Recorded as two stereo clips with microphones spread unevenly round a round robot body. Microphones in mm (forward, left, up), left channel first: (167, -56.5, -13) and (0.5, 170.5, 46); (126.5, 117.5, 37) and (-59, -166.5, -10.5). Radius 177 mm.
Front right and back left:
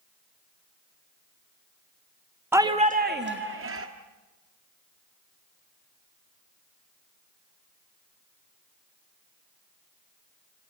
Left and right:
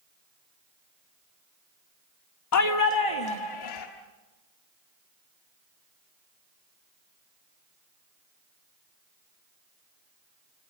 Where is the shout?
35° left, 0.8 m; by 3.9 s 80° left, 1.6 m.